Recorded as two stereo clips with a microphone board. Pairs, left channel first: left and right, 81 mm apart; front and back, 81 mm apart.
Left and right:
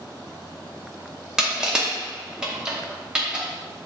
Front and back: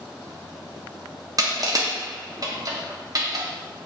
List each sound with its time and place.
1.4 s crushing: 170° right, 0.8 m